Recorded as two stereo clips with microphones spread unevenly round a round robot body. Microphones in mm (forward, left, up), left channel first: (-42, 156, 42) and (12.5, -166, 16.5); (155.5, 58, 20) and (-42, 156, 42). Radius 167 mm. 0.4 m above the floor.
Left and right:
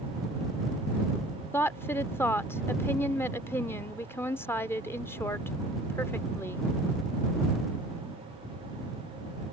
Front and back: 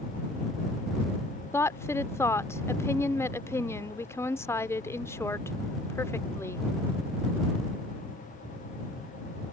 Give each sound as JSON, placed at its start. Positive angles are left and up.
{"t": 1.5, "sound": "a woman speaking", "azimuth_deg": 15}